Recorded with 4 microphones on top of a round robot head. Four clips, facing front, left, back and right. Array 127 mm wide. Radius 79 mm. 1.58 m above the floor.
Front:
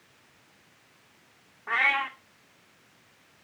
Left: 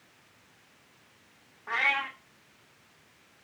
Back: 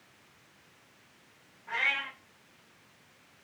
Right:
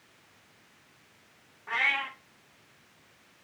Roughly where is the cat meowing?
Ahead left.